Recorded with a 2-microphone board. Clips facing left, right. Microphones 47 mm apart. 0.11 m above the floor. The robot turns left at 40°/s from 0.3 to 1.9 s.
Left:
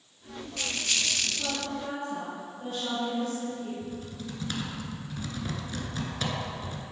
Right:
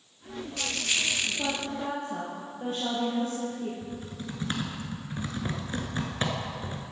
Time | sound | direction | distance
1.4 | a woman speaking | 50° right (ahead or behind) | 3 m
3.8 | typing on a keyboard | 30° right (ahead or behind) | 1.4 m